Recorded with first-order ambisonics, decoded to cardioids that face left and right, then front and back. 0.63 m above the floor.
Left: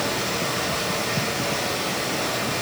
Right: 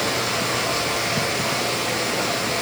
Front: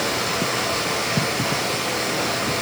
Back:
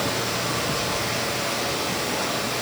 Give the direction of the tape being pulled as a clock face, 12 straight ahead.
I don't hear tape being pulled.